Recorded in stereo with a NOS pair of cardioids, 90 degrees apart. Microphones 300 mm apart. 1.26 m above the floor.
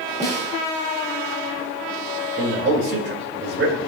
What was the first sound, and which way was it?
A snare drum, 25° right.